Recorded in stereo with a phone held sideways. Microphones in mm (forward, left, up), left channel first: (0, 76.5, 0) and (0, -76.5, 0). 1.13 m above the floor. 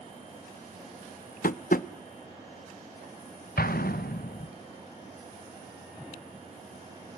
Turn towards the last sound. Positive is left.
turn(degrees=80)